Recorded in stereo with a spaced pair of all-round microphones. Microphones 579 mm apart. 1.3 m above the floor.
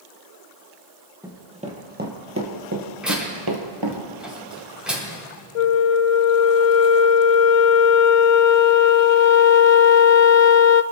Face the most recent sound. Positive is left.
turn(degrees=75)  # may be behind; listen again after turning